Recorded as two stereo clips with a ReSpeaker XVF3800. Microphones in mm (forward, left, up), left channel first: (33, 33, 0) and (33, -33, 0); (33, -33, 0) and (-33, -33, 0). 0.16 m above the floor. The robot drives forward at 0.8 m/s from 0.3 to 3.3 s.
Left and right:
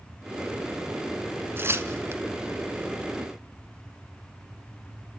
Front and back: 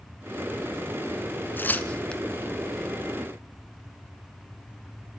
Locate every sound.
1.6 s tearing paper: 50° right, 1.6 m; by 2.2 s 75° right, 1.4 m